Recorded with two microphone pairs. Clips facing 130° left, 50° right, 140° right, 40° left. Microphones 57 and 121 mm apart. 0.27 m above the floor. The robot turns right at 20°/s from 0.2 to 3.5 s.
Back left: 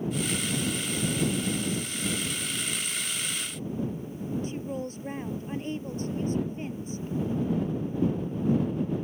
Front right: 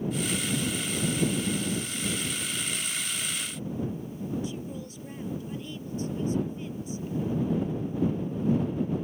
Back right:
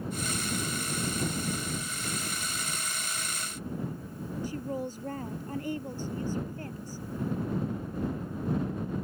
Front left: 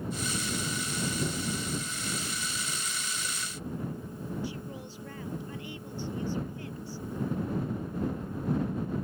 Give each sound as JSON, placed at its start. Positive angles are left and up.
{"t": 4.4, "sound": "a woman speaking", "azimuth_deg": 175}